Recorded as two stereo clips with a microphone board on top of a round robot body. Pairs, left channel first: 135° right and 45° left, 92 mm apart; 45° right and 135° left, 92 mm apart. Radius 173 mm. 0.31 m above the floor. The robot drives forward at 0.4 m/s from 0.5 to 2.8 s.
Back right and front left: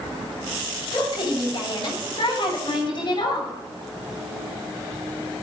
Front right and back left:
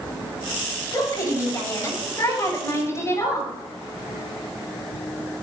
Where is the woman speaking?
100° right, 8 m; by 3.5 s 105° right, 8.5 m.